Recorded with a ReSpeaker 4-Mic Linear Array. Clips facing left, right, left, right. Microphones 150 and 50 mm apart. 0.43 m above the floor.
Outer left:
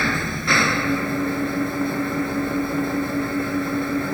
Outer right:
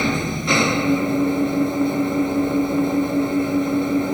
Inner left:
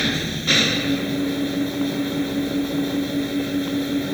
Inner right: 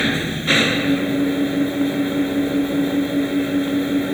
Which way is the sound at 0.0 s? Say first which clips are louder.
Outer right 3 dB, inner right 3 dB; 20° right (ahead or behind).